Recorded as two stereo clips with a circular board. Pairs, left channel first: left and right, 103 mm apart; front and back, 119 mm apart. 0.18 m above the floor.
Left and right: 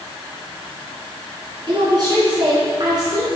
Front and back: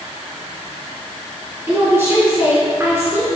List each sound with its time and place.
1.7 s a woman speaking: 115° right, 2.5 m